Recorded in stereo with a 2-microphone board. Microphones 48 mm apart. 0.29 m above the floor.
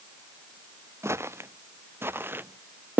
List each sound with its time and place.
1.0 s footsteps: 60° right (ahead or behind); by 3.0 s 30° right (ahead or behind)